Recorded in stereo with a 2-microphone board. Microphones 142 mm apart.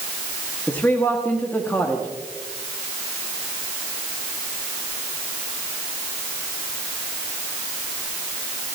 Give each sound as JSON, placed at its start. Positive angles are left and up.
{"t": 0.7, "sound": "a man speaking", "side_deg": 15, "distance_m": 1.8}